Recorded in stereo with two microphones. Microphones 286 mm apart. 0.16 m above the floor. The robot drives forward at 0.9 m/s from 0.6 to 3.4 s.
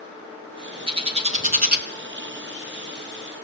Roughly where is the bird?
Centre.